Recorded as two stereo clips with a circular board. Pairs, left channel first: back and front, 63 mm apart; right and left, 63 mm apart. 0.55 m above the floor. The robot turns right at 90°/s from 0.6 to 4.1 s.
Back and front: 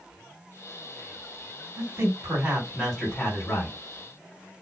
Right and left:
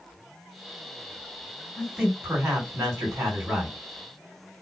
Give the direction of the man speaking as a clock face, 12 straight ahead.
12 o'clock.